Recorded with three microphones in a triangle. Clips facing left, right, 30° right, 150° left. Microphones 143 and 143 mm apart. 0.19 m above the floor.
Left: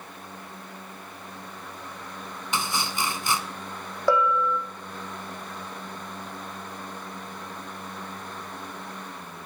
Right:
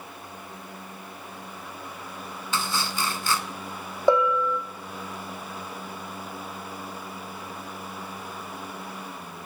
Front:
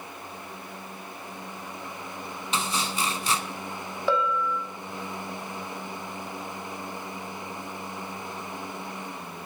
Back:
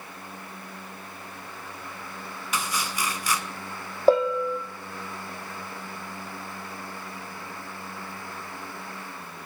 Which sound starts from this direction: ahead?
Chopping, at 2.5 s.